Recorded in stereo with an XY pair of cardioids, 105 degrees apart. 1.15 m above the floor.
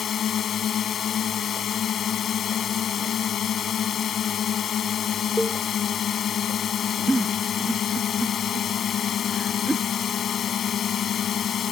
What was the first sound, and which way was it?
A drone, 55° left.